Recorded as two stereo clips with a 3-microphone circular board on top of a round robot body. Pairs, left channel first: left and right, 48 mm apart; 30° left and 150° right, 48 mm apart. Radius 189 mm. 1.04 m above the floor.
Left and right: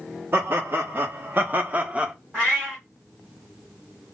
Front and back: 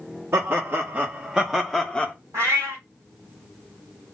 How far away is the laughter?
About 1.3 m.